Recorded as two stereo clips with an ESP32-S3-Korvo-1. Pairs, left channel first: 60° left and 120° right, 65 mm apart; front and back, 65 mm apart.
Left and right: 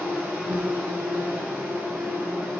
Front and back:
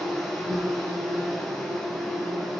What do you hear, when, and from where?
0.0 s an insect: 85° right, 1.3 m